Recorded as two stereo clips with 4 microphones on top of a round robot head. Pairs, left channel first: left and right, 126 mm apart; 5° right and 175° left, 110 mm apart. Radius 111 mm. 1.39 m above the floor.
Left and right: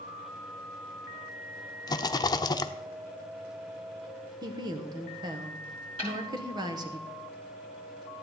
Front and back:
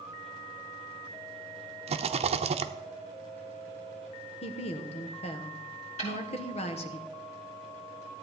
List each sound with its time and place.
1.9 s a rattle: 150° left, 0.7 m
4.4 s a woman speaking: 30° right, 1.2 m
6.0 s a snare drum: 35° right, 7 m